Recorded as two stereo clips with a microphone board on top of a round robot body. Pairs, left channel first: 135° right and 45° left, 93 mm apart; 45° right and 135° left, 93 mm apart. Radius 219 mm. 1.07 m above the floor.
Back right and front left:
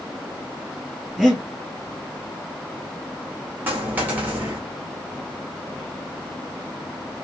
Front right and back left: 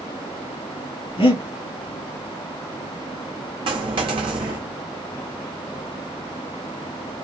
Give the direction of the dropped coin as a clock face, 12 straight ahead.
8 o'clock.